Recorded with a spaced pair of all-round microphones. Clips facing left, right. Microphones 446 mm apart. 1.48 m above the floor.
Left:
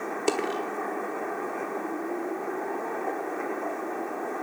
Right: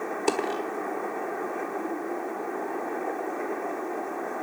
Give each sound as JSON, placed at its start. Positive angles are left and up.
{"t": 0.3, "sound": "a dropped coin", "side_deg": -5, "distance_m": 1.2}